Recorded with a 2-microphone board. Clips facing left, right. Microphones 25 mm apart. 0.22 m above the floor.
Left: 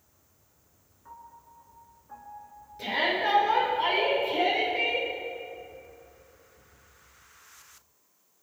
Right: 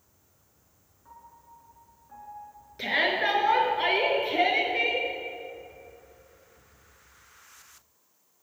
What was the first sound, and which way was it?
A piano, 15° left (ahead or behind).